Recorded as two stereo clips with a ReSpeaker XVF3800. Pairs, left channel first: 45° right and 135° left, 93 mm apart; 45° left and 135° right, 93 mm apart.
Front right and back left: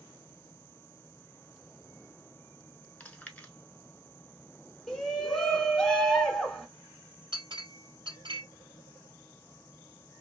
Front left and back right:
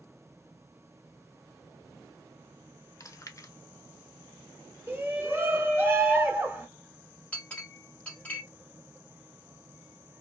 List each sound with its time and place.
3.0 s chewing: 20° left, 0.7 m
4.9 s a shout: 120° right, 1.3 m
7.3 s a clink: 115° left, 2 m